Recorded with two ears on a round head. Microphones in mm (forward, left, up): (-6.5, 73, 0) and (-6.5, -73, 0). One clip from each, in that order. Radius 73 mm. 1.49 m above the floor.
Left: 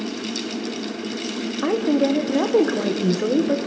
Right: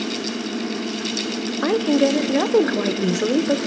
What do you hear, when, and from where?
1.6 s a woman speaking: 80° right, 1.0 m